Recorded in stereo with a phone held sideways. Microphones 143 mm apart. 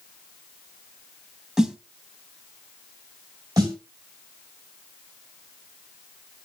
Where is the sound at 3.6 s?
25° right (ahead or behind), 3.5 m.